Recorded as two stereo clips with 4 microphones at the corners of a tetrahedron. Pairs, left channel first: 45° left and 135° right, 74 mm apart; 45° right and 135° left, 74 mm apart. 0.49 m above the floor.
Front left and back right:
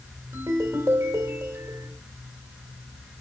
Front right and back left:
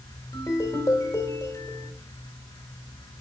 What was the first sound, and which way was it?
A ringtone, 85° right.